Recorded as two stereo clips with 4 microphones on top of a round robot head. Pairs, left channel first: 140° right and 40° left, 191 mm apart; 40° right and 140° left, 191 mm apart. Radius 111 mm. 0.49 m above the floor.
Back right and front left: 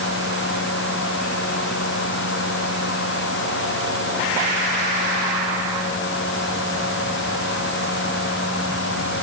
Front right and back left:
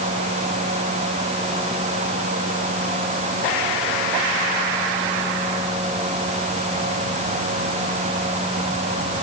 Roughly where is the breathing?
I don't hear breathing.